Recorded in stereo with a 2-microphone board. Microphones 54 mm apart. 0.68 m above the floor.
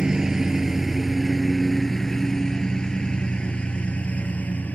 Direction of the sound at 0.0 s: 10° right (ahead or behind).